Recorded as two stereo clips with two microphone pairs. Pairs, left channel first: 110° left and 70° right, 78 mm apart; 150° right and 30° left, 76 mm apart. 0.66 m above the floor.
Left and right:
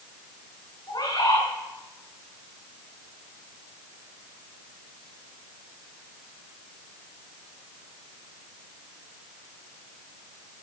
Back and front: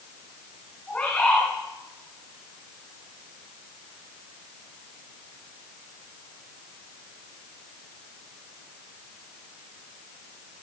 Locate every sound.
0.9 s a bird: 140° left, 6 m